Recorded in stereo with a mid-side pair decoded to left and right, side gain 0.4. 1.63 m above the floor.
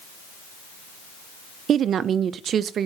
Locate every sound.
1.7 s a woman speaking: 65° right, 0.5 m